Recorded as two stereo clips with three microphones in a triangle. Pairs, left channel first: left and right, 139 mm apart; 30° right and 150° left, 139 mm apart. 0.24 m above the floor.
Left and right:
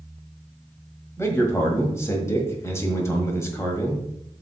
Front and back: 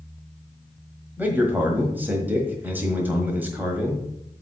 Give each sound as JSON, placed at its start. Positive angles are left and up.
{"t": 1.2, "sound": "a man speaking", "azimuth_deg": 100, "distance_m": 1.5}